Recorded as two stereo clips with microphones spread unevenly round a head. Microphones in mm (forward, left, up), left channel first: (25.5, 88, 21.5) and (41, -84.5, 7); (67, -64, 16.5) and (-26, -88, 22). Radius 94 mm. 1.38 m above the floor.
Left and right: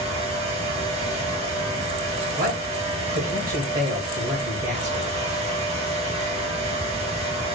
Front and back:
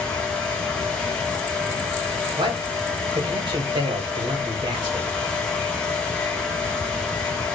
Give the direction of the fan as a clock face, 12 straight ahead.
2 o'clock.